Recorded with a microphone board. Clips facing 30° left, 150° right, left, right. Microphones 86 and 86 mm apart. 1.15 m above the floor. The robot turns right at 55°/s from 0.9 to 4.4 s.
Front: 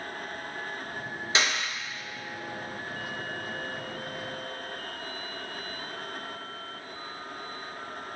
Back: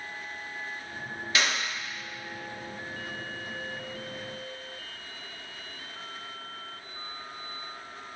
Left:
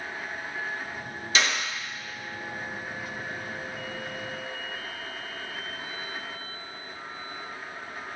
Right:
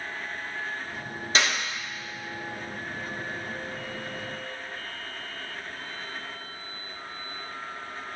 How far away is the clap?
About 2.5 m.